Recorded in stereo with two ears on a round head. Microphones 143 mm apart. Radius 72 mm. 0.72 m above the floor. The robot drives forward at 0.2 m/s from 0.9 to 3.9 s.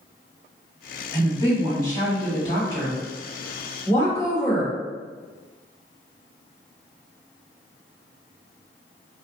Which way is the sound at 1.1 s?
25° left (ahead or behind).